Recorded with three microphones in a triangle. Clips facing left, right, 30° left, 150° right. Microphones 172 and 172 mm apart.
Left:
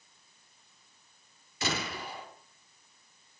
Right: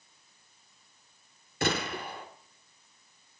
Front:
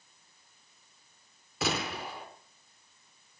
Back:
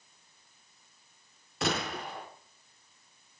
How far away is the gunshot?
About 5 m.